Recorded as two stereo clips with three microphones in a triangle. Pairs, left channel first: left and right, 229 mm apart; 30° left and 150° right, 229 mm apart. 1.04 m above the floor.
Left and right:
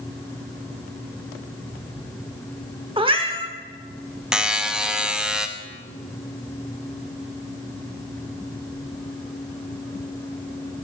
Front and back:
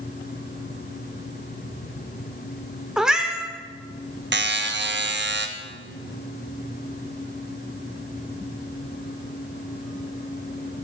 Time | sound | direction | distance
3.0 | a cat meowing | 65° right | 0.7 m
4.3 | a buzzer | 175° right | 0.5 m